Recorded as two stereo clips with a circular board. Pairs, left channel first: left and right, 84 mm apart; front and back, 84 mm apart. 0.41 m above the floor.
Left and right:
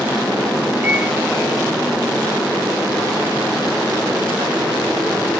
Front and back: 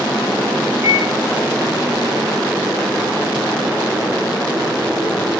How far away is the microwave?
About 1.2 m.